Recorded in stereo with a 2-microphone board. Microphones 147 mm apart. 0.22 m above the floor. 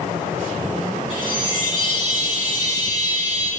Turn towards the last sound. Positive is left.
turn(degrees=40)  # may be behind; listen again after turning